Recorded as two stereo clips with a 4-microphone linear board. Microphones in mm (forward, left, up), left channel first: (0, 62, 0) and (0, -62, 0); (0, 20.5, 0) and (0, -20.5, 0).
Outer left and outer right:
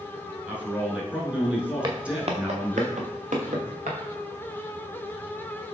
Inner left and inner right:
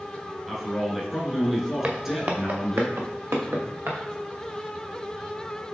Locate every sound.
0.5 s a man speaking: 10° right (ahead or behind), 1.1 m
1.8 s footsteps: 35° right (ahead or behind), 1.0 m; by 4.0 s 80° right, 1.7 m